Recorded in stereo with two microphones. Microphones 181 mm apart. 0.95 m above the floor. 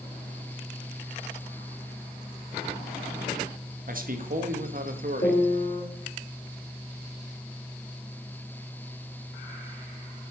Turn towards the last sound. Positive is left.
turn(degrees=40)  # may be behind; listen again after turning